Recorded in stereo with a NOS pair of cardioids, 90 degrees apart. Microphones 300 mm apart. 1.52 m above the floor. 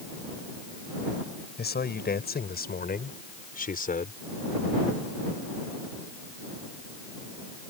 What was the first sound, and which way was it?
A man speaking, 35° left.